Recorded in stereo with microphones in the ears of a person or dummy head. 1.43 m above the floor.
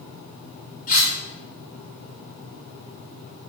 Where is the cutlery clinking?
40° left (ahead or behind), 1.4 m.